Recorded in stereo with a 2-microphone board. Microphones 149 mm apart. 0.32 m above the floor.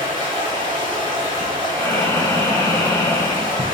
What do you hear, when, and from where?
0.0 s running water: 35° right (ahead or behind), 2 m
1.7 s breathing: 20° left (ahead or behind), 0.6 m